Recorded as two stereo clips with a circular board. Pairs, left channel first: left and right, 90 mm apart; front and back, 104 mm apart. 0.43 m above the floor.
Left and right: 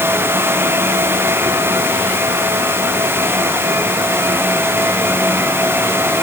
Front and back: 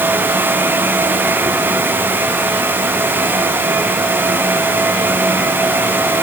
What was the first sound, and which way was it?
Only background noise.